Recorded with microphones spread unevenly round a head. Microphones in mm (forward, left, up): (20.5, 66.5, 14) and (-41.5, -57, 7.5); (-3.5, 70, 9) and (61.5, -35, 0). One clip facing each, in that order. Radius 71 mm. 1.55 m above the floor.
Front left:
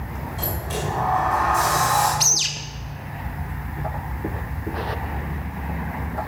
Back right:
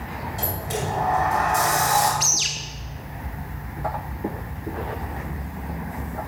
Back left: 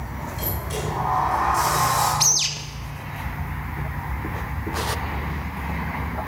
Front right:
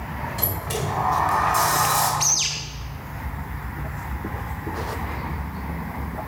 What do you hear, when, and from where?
0.4 s a sliding door: 40° right, 4.5 m
2.2 s a bird: 90° left, 1.7 m